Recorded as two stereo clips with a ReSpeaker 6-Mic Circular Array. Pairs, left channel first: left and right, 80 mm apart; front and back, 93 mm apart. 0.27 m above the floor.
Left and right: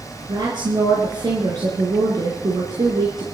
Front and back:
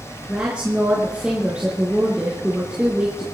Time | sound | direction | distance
0.3 | a woman speaking | 100° right | 3.5 m